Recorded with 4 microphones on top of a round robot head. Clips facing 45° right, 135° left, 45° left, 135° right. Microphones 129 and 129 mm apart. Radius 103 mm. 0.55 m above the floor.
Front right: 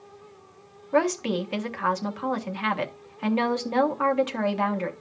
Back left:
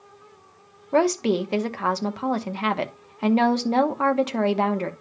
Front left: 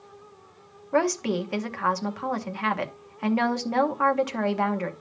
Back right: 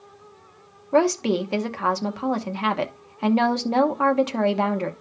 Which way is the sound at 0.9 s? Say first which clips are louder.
Back left 3 dB, back right 4 dB; 175° left.